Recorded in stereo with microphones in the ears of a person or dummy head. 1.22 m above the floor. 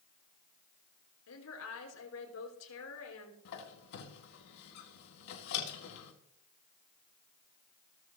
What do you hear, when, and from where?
1.3 s a woman speaking: 80° left, 4.5 m
3.5 s a squeak: 60° left (ahead or behind), 2.5 m